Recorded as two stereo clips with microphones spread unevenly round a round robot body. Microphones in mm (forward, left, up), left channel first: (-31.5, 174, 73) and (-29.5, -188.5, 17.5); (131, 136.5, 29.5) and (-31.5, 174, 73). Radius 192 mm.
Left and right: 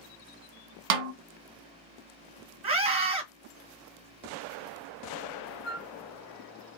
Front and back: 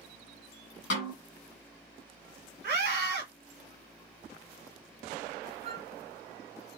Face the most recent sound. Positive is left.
turn(degrees=115)